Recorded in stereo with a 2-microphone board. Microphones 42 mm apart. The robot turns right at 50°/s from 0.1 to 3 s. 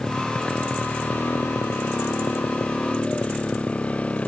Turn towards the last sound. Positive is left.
turn(degrees=35)  # may be behind; listen again after turning